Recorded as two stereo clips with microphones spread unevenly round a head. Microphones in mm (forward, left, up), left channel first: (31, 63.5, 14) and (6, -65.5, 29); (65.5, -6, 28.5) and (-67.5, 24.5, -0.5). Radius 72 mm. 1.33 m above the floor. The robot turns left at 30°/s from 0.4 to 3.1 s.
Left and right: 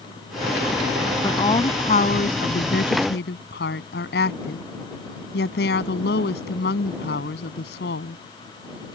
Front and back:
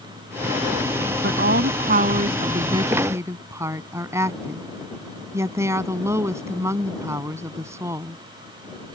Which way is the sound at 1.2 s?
150° left.